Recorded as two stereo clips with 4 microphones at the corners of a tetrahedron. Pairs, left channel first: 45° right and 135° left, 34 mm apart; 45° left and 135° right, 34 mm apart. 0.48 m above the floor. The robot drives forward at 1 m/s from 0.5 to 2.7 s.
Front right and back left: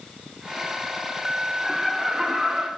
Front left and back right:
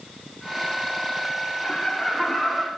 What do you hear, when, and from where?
1.6 s laughter: 50° left, 1.2 m; by 2.7 s 155° left, 1.4 m